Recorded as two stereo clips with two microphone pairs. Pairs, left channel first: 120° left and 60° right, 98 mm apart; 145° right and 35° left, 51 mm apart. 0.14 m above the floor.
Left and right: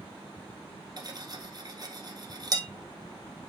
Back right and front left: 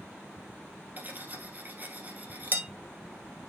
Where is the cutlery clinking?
15° right, 1.7 m.